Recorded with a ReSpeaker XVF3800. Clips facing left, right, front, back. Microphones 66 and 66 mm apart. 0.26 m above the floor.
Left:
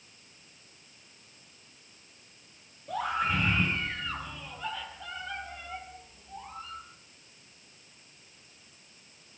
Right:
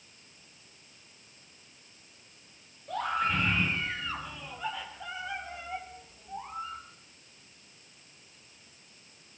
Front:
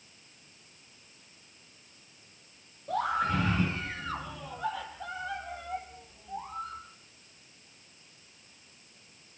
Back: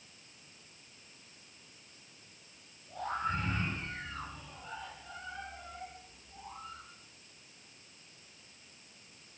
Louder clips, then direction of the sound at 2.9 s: Even, front 7 dB; 5° left.